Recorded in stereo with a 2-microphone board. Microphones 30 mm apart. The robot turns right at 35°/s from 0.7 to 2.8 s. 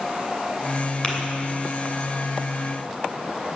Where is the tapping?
25° left (ahead or behind), 2.5 m; by 1.1 s 30° left (ahead or behind), 2.5 m.